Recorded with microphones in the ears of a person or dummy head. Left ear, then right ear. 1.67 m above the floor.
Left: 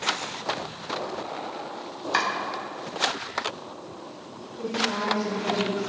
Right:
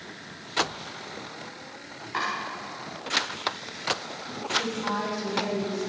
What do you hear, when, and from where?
2.1 s chopping: 75° left (ahead or behind), 4 m
4.6 s a woman speaking: 45° right (ahead or behind), 4.5 m